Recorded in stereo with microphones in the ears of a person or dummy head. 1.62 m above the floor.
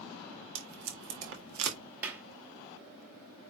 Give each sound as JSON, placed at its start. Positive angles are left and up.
{"t": 0.6, "sound": "tape being pulled", "side_deg": -65, "distance_m": 1.8}
{"t": 2.0, "sound": "a clap", "side_deg": -10, "distance_m": 0.9}